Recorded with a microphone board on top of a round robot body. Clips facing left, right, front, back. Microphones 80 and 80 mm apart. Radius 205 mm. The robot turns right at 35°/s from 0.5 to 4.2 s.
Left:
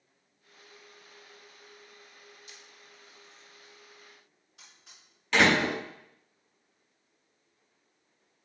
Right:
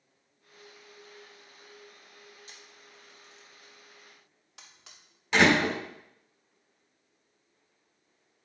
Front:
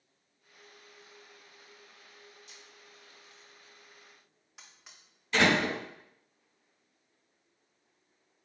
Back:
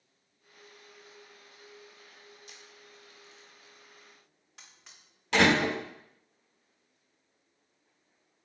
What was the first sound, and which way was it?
A camera shutter, 145° right.